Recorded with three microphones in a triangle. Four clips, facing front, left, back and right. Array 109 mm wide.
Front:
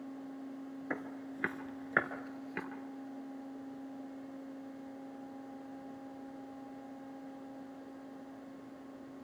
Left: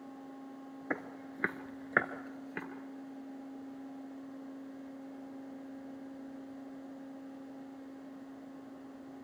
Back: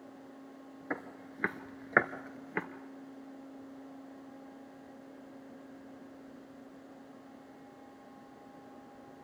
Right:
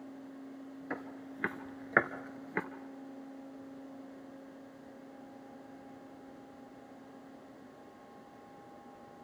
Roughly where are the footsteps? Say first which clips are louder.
Left 3 dB, back 2 dB; left.